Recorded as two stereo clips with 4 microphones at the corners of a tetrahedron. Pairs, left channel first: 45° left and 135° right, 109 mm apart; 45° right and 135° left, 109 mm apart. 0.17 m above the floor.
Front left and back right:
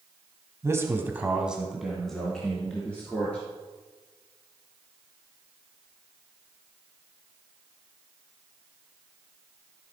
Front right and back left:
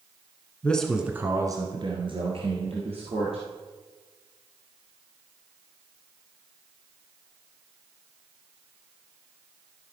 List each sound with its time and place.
0.6 s a man speaking: 105° right, 1.3 m; by 3.4 s 125° left, 3.5 m